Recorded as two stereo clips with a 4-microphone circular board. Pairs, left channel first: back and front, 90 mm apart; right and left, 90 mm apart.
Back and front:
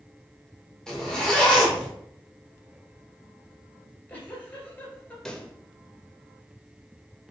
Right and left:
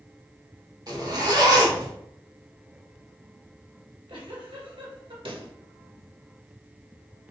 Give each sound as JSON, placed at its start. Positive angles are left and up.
{"t": 0.9, "sound": "a zipper", "azimuth_deg": 100, "distance_m": 1.6}
{"t": 3.8, "sound": "a giggle", "azimuth_deg": 110, "distance_m": 2.0}
{"t": 5.2, "sound": "a pop", "azimuth_deg": 95, "distance_m": 0.8}